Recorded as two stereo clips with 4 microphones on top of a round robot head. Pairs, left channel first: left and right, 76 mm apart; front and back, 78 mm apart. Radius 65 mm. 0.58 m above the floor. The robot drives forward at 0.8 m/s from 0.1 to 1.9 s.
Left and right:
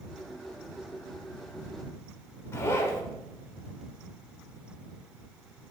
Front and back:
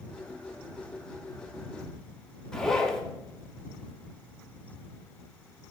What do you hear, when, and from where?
2.5 s a zipper: 75° left, 0.6 m